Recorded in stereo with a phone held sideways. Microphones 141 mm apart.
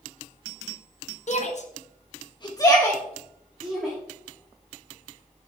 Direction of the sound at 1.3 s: 55° left (ahead or behind).